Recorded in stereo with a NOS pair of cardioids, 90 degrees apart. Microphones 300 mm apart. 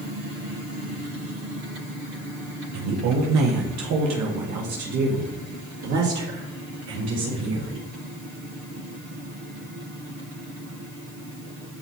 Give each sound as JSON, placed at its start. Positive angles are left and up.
{"t": 2.7, "sound": "a woman speaking", "azimuth_deg": -60, "distance_m": 1.3}